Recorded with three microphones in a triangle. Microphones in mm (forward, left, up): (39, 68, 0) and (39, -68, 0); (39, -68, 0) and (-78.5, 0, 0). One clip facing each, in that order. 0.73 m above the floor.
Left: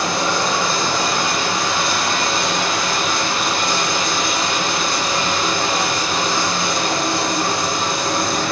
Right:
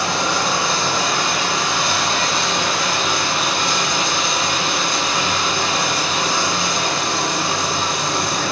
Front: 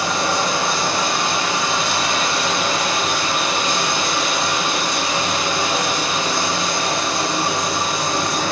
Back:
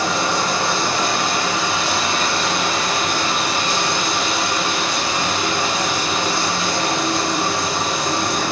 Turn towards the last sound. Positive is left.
turn(degrees=45)